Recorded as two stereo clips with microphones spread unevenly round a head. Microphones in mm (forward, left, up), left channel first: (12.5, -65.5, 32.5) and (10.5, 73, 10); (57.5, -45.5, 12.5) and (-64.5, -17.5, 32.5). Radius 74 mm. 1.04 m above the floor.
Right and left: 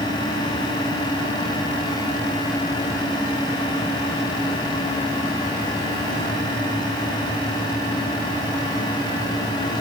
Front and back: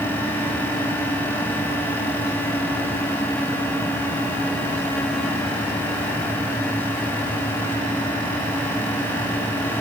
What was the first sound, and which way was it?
Only background noise.